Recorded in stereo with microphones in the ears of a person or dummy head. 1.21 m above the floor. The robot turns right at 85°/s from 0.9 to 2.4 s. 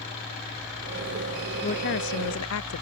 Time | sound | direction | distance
1.6 | a woman speaking | 35° left | ?